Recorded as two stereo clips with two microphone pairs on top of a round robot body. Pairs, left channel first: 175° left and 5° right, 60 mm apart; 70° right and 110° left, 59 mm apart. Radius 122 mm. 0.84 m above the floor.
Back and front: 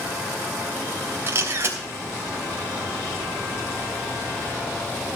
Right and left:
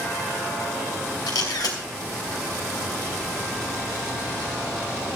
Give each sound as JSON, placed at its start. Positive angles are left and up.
{"t": 1.3, "sound": "a camera shutter", "azimuth_deg": -60, "distance_m": 3.0}